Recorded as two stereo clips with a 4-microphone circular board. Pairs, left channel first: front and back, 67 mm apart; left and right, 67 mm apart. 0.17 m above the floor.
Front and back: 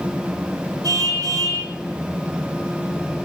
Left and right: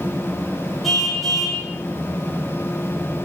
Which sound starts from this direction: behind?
A car horn, at 0.8 s.